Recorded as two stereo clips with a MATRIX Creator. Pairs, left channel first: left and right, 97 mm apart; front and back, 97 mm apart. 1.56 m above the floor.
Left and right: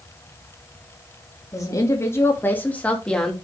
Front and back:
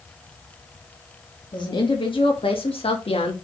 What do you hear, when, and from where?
1.5 s a woman speaking: 40° left, 2.5 m; by 3.4 s 5° left, 2.5 m